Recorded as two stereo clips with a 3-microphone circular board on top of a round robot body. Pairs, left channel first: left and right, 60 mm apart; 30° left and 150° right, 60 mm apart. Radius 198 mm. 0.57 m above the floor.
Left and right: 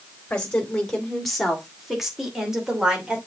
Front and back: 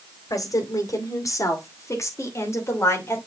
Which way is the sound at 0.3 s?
15° left.